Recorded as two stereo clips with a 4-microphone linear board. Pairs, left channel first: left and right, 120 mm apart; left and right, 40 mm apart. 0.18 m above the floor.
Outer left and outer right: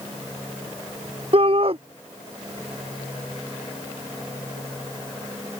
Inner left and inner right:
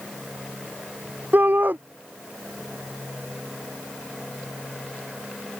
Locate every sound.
1.3 s a shout: 50° right (ahead or behind)